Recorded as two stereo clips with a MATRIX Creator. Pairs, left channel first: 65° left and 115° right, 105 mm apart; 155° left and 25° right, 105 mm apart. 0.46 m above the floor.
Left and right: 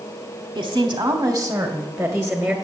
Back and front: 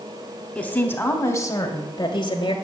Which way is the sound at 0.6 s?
125° right.